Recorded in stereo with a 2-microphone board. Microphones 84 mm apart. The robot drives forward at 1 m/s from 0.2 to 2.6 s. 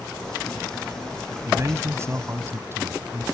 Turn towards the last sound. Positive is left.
turn(degrees=-30)  # may be behind; listen again after turning